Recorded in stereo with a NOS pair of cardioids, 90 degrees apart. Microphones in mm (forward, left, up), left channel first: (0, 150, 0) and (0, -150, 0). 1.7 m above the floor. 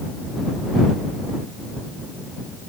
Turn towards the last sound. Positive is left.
No sound to turn to.